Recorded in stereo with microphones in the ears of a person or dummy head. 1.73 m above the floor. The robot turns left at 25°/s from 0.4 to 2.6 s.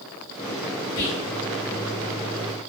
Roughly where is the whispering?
Left.